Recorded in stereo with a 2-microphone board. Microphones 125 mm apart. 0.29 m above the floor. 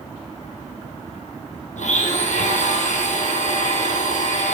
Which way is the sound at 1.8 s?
75° left (ahead or behind).